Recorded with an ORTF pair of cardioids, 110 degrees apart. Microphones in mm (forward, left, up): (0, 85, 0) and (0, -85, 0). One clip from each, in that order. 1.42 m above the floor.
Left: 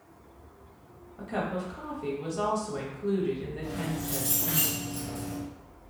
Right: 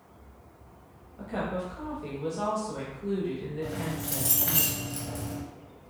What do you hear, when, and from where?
1.2 s a woman speaking: 15° left, 0.8 m
3.6 s keys jangling: 45° right, 1.1 m